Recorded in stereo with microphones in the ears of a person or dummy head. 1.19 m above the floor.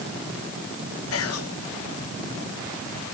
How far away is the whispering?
About 1.4 m.